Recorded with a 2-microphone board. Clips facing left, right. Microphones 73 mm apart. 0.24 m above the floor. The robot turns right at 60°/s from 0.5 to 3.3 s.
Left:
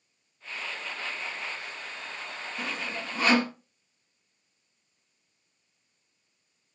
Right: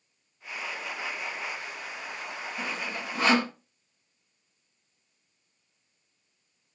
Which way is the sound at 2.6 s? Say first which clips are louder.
Even; 5° left (ahead or behind).